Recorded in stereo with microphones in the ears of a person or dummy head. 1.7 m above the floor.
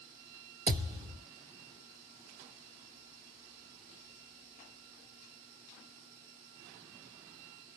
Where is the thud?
20° right (ahead or behind), 1.4 m.